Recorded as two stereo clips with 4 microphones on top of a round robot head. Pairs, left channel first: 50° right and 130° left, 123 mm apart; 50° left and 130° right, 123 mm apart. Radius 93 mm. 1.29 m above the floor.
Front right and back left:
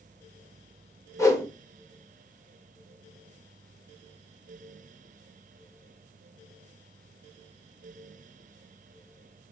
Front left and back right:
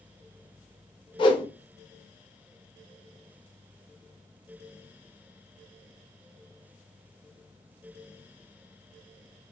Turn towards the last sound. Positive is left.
turn(degrees=10)